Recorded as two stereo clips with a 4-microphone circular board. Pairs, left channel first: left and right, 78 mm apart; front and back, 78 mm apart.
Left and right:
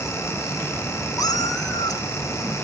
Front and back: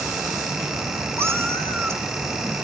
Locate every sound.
1.2 s a cat meowing: 120° left, 1.6 m